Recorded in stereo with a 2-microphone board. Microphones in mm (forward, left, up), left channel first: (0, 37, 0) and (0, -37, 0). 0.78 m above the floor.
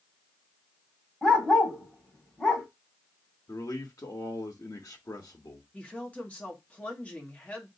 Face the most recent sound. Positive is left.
turn(degrees=20)  # may be behind; listen again after turning